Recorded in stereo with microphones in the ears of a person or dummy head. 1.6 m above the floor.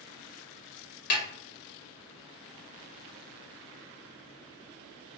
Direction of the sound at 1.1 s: 50° left (ahead or behind).